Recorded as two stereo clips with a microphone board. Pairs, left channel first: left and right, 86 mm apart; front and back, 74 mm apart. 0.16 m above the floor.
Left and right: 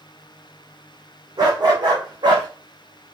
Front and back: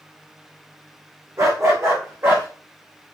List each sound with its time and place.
1.4 s a dog barking: 130° right, 3 m; by 2.5 s 120° right, 3.5 m